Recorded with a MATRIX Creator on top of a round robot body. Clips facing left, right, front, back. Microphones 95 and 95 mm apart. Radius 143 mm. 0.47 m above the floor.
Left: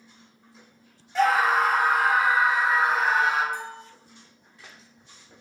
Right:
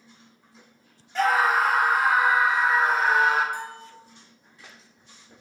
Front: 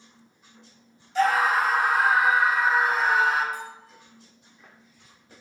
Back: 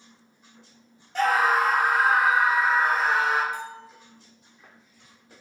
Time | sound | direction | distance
1.1 | a scream | straight behind | 1.8 m
3.5 | a bell | 120° right | 1.1 m